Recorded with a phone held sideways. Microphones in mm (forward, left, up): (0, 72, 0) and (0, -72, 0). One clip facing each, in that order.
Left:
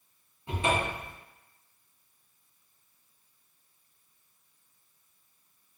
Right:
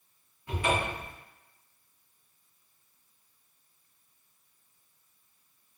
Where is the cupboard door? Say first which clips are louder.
Left 1 dB; 25° left (ahead or behind), 0.6 m.